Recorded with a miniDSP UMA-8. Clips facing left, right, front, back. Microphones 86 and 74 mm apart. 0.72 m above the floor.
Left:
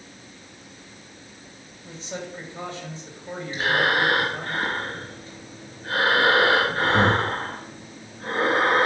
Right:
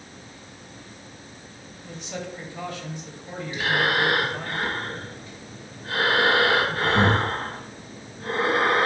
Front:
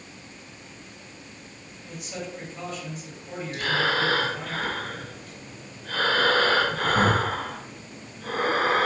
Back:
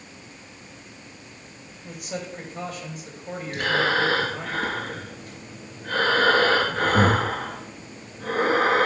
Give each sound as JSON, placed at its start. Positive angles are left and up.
{"t": 1.8, "sound": "a man speaking", "azimuth_deg": 150, "distance_m": 3.0}
{"t": 3.5, "sound": "breathing", "azimuth_deg": 150, "distance_m": 2.5}